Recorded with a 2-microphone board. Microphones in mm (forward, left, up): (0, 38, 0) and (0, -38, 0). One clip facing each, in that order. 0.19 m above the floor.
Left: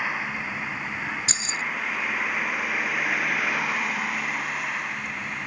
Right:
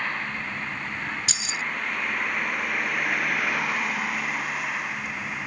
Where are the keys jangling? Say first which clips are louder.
Left 1 dB; 35° left (ahead or behind).